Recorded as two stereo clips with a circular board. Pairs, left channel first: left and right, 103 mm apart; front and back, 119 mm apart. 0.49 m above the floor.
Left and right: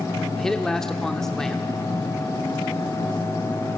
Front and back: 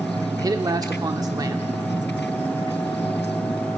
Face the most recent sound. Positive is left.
turn(degrees=170)